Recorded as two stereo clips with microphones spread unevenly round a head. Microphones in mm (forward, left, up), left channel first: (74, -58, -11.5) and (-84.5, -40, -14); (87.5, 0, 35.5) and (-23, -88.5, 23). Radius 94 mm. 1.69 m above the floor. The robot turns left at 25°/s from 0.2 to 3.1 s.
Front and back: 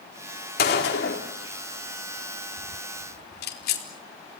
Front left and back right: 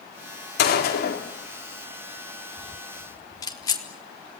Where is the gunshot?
40° left, 4 m; by 3.8 s 25° right, 4 m.